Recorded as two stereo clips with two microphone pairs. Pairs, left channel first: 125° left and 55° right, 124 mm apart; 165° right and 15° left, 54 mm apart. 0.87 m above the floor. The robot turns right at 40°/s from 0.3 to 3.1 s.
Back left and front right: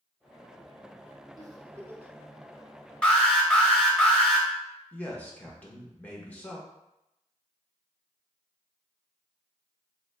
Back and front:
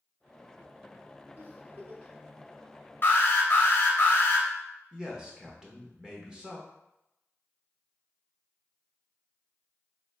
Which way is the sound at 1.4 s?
15° right.